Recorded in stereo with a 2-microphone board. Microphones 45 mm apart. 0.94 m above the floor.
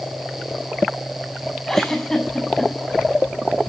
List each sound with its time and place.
1.7 s a giggle: 10° left (ahead or behind), 6.5 m